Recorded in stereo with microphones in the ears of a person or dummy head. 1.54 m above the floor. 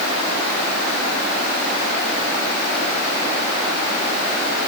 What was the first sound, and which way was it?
Only background noise.